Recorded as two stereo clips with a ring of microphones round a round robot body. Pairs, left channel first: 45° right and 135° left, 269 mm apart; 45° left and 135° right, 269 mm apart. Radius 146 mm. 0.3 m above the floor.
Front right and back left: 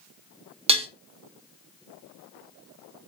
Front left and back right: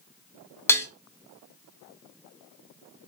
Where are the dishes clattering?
110° left, 0.6 m.